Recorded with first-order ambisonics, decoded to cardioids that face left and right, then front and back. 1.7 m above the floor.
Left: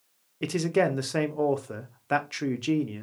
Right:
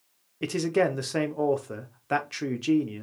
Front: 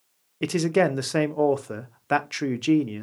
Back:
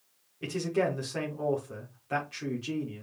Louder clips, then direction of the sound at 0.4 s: Even, front 8 dB; 5° left.